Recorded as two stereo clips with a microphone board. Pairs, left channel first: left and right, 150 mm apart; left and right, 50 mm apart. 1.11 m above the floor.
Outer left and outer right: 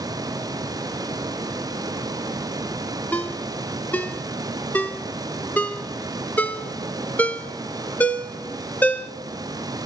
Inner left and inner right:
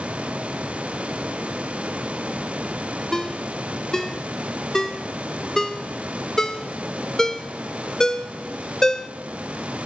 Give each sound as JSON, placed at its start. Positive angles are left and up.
{"t": 3.1, "sound": "a ringtone", "side_deg": 10, "distance_m": 0.8}